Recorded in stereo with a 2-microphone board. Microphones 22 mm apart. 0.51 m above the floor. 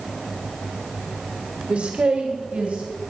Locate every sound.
1.7 s a man speaking: 65° right (ahead or behind), 1.4 m; by 2.9 s 70° right (ahead or behind), 3 m